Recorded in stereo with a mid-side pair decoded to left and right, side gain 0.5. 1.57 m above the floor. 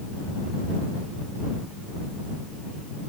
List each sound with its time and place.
Only background noise.